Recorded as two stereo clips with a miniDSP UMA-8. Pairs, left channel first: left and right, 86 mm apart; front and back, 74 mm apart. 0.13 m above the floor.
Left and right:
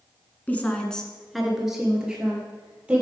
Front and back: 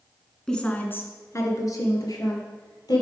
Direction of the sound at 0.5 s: 65° left.